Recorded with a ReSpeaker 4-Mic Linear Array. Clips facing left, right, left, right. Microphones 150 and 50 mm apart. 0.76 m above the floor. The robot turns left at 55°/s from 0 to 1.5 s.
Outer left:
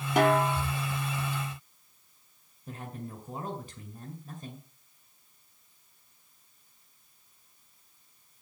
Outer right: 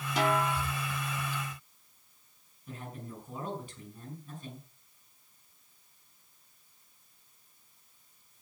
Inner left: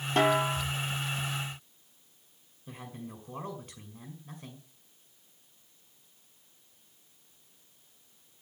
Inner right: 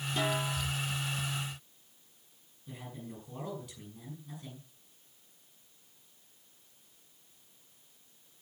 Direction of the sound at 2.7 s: 40° left (ahead or behind).